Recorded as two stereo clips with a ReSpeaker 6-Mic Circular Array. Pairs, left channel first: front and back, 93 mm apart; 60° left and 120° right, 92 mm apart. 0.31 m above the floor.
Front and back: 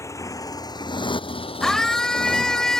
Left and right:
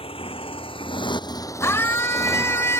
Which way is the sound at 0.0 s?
60° left.